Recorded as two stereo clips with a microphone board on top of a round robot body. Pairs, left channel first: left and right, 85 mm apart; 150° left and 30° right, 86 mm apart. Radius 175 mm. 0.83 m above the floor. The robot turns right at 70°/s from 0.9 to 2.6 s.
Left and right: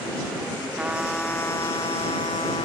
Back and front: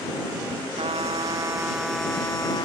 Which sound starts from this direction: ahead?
A trumpet, at 0.8 s.